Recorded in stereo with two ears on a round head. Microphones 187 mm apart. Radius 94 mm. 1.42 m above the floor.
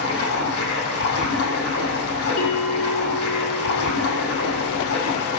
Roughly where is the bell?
Left.